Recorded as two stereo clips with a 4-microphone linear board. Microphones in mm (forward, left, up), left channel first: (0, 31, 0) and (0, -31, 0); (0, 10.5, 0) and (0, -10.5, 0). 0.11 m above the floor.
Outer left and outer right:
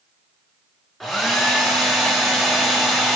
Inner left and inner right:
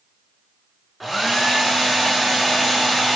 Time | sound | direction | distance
1.0 | a hair dryer | centre (ahead or behind) | 1.6 m